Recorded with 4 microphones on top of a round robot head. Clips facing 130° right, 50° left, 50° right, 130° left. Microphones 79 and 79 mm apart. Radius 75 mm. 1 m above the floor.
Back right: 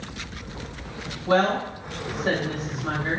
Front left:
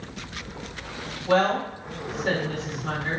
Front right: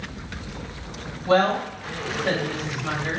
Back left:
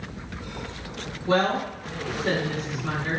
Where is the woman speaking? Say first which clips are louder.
Even, front right 3 dB; 80° right, 1.3 m.